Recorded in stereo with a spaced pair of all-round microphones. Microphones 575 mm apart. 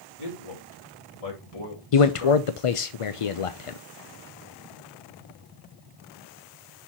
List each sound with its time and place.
0.2 s a man speaking: 80° left, 3 m
1.9 s a man speaking: 65° left (ahead or behind), 0.7 m